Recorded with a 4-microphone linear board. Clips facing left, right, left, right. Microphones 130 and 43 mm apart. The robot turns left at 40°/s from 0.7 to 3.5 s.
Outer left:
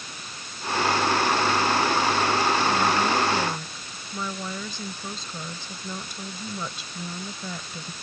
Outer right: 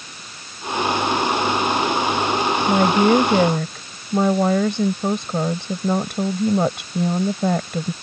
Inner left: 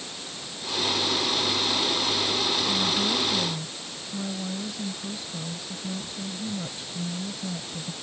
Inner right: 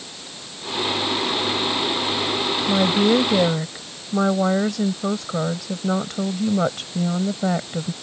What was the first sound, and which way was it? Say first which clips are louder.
A woman speaking: outer right 8 dB, inner right 8 dB; 70° right.